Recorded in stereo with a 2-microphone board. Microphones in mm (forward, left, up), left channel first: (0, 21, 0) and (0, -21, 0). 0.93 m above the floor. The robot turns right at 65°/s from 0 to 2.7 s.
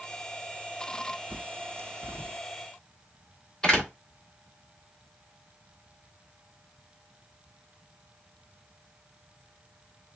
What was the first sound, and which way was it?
A bird, 60° right (ahead or behind).